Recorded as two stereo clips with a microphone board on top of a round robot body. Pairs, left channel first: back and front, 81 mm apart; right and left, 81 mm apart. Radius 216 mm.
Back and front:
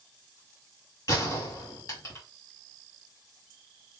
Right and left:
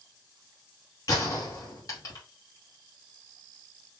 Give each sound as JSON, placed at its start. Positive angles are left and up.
{"t": 1.1, "sound": "a gunshot", "azimuth_deg": -135, "distance_m": 2.5}